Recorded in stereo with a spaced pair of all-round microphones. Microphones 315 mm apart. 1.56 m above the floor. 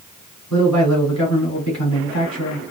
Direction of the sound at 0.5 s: 60° left (ahead or behind).